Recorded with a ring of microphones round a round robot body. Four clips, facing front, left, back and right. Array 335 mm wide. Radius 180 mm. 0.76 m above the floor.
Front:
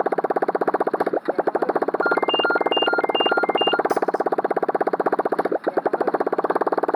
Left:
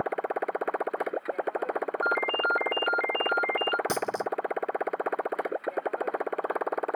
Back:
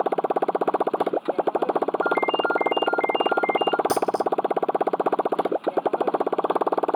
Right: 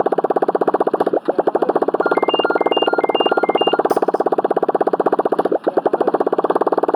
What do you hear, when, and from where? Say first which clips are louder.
0.0 s a motorcycle: right 14 dB, front 2 dB; 85° right
2.0 s a ringtone: right 12 dB, front 3 dB; 25° right
3.9 s a dropped coin: right 14 dB, front 2 dB; 150° left